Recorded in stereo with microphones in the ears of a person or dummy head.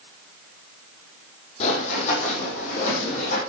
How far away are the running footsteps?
About 4.5 m.